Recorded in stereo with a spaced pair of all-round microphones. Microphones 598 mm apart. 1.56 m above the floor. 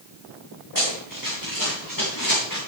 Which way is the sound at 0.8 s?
35° left (ahead or behind).